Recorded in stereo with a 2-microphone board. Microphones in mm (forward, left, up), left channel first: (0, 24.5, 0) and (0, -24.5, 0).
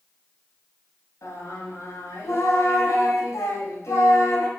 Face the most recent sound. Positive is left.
turn(degrees=85)